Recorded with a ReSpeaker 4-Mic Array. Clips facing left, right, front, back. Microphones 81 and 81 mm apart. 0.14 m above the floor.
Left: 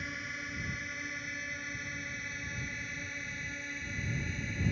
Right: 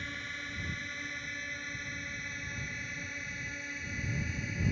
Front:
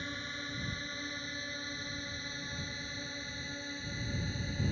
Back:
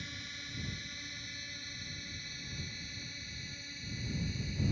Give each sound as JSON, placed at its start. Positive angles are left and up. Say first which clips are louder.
{"t": 0.0, "sound": "a drone", "louder": "left 1 dB, front 6 dB", "azimuth_deg": 10}